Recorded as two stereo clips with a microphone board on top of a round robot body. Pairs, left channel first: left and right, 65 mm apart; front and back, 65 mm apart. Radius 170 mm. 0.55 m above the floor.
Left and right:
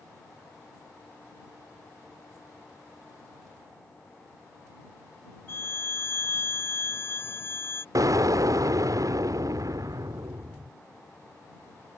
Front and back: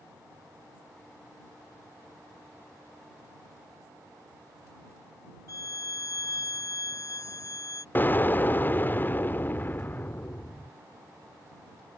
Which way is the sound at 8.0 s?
60° right.